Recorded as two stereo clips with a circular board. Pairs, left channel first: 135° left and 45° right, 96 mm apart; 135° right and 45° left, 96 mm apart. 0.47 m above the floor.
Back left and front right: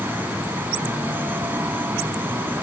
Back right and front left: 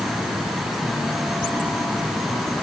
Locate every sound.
Only background noise.